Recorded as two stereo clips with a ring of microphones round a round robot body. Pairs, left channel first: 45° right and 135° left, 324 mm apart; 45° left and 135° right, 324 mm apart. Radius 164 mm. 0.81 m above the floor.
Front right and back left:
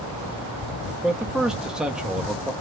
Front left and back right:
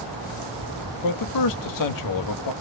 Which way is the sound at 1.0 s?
45° left.